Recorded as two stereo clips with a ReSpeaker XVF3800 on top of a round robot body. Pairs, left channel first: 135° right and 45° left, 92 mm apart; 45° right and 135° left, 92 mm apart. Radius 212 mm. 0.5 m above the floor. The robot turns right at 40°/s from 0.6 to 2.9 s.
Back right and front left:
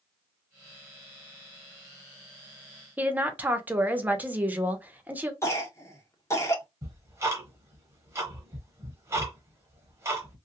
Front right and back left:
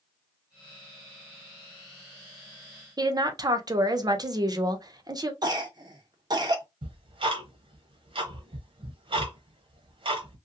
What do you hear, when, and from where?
3.0 s a woman speaking: 110° left, 1.0 m
5.4 s a cough: 170° left, 1.5 m
6.8 s ticking: 105° left, 0.9 m